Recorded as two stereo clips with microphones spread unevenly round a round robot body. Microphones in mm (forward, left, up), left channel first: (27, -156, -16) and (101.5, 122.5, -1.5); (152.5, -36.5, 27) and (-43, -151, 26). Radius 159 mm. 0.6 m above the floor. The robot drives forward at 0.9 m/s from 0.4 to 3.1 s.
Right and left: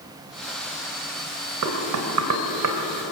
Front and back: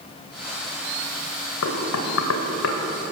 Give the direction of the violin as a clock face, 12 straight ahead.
No violin in this recording.